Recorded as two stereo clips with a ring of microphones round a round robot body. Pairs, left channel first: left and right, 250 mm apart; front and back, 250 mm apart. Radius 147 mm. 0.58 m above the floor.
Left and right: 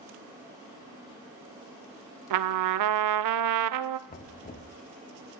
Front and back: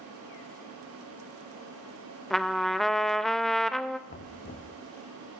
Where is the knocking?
45° left, 1.1 m.